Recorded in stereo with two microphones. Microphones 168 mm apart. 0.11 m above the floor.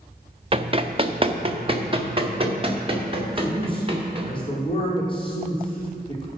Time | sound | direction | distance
0.5 | running footsteps | 35° right (ahead or behind) | 0.7 m
3.4 | a man speaking | 30° left (ahead or behind) | 3.5 m